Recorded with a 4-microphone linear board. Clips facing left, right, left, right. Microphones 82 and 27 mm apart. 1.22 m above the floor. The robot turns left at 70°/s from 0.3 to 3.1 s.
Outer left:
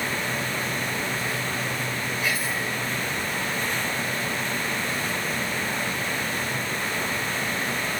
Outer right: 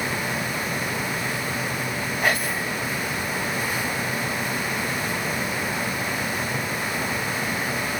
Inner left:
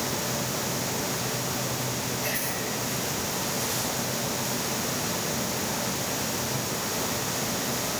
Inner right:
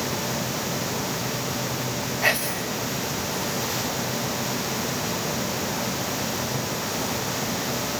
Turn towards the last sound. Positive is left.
turn(degrees=-120)